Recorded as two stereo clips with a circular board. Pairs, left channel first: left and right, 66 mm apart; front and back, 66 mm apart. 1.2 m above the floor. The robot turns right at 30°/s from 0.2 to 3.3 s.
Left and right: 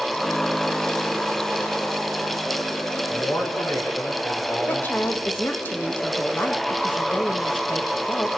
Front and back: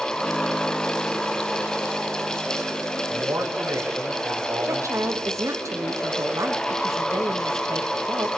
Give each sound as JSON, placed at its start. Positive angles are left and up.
{"t": 3.1, "sound": "a man speaking", "azimuth_deg": 125, "distance_m": 4.5}
{"t": 4.7, "sound": "a woman speaking", "azimuth_deg": 150, "distance_m": 1.7}